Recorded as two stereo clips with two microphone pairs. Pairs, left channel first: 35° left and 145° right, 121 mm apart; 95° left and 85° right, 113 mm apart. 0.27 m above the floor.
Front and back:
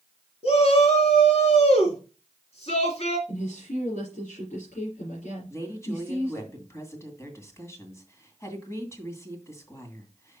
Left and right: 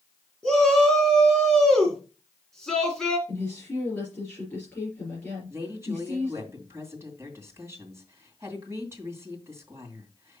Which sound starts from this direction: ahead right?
A woman speaking, at 5.5 s.